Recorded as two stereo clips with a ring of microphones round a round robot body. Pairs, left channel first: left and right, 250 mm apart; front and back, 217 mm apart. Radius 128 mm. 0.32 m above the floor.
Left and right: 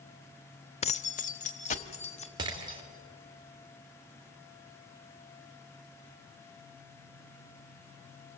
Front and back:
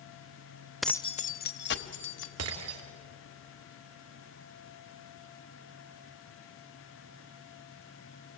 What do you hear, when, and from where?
0.8 s keys jangling: 95° left, 0.5 m; by 2.3 s 25° left, 1.6 m
2.4 s breaking glass: 165° right, 2.5 m